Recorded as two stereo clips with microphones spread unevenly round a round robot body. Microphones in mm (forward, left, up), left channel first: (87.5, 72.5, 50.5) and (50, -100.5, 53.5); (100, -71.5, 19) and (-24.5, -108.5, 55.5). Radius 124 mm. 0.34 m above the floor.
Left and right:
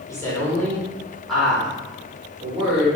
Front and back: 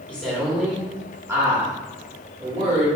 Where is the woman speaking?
30° left, 1.4 m; by 2.9 s 165° right, 1.5 m.